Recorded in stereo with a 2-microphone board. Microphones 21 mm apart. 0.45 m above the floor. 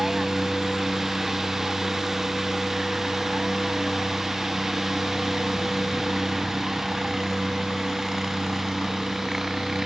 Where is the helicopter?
20° right (ahead or behind); by 9.9 s 15° right (ahead or behind).